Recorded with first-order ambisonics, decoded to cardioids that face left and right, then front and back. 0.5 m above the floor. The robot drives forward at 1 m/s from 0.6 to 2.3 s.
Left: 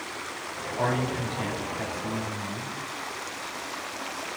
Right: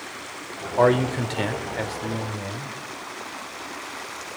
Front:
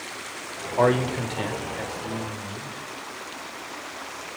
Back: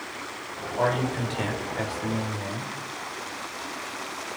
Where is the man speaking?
55° right, 1.6 m; by 2.7 s 125° right, 1.6 m.